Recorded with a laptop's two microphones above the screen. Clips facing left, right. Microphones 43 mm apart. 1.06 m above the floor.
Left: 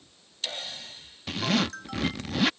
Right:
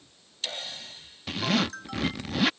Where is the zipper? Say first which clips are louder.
Even; centre (ahead or behind).